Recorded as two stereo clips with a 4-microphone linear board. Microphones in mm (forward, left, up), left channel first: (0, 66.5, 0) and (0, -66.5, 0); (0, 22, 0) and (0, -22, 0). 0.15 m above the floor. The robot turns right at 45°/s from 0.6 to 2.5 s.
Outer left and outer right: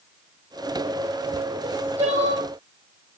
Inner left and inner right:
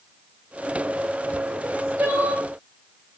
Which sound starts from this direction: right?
Crying, at 1.6 s.